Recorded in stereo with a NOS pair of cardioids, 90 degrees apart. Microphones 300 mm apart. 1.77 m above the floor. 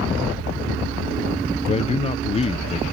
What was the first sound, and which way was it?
A man speaking, 20° left.